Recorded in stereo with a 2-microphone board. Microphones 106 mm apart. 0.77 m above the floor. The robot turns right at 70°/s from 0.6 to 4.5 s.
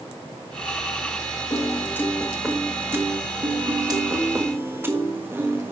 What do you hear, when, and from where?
1.5 s a piano: 115° left, 1.3 m; by 5.7 s 35° right, 1.3 m